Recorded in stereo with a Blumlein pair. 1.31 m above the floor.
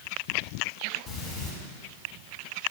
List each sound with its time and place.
1.1 s breathing: 25° left, 3 m